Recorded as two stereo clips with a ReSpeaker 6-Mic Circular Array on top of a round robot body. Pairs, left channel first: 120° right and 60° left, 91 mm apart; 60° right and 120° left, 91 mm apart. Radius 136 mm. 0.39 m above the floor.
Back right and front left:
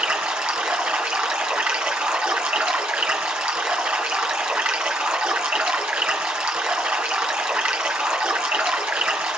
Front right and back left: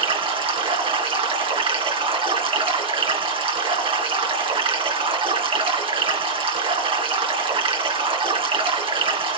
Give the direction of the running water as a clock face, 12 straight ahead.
7 o'clock.